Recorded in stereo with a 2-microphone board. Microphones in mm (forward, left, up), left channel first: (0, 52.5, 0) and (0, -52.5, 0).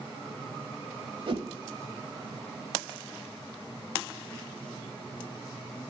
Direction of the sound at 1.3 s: 55° right (ahead or behind).